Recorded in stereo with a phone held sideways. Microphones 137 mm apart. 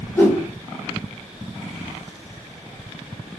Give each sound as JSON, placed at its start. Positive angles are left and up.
{"t": 0.1, "sound": "a whoosh", "side_deg": 20, "distance_m": 1.7}